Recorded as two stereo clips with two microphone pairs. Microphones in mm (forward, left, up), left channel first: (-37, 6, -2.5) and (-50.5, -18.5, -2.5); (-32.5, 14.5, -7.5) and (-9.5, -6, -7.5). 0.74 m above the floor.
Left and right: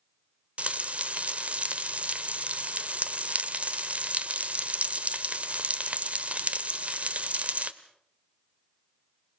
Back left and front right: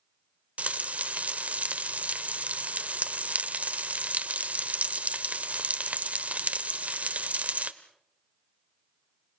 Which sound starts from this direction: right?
Frying, at 0.6 s.